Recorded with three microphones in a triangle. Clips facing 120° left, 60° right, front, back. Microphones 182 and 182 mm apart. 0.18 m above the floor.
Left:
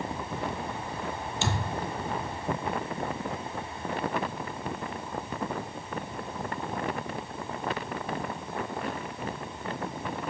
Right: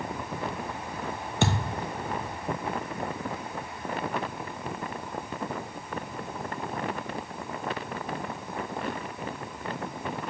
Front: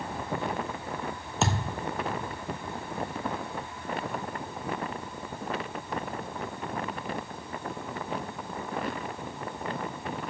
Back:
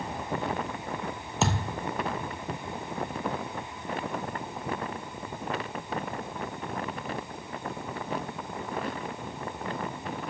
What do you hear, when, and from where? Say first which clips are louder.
1.4 s a thud: right 5 dB, even; 90° right, 0.8 m